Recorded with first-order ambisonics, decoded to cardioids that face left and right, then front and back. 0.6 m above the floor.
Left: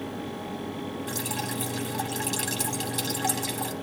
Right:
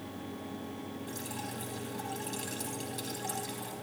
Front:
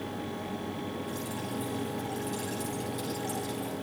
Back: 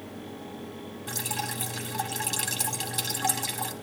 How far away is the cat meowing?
No cat meowing in this recording.